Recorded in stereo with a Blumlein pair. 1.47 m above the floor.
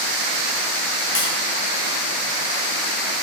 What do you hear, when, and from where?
1.1 s tapping: 55° left, 10 m